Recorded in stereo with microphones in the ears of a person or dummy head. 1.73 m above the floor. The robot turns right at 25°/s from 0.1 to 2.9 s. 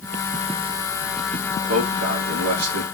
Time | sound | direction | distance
1.7 | a man speaking | 45° right (ahead or behind) | 3.5 m